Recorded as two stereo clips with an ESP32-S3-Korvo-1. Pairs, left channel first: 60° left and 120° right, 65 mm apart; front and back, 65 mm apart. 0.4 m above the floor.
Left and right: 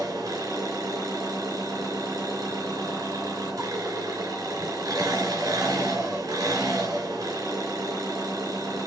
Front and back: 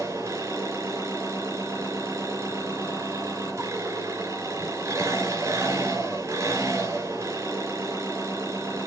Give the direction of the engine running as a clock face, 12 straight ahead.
5 o'clock.